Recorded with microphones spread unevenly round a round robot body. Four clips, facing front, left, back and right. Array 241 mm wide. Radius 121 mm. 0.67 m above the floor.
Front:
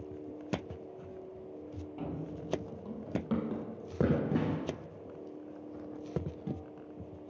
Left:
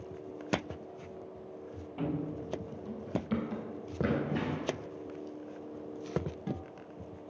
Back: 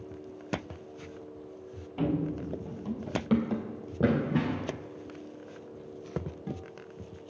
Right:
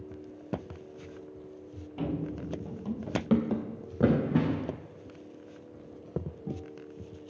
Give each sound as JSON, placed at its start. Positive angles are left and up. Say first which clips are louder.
{"t": 2.0, "sound": "running footsteps", "louder": "right 2 dB, back 11 dB", "azimuth_deg": 180, "distance_m": 0.8}